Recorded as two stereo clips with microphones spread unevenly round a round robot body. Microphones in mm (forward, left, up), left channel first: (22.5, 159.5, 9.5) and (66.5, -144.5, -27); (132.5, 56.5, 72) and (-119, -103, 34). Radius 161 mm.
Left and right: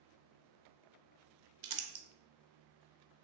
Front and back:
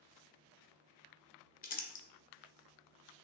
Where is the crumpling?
35° right, 0.8 m.